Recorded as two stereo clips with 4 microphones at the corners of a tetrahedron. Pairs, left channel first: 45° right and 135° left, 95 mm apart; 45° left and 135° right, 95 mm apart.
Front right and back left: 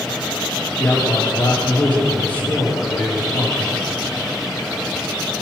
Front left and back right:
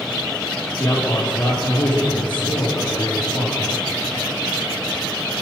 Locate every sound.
0.8 s a man speaking: 25° left, 5 m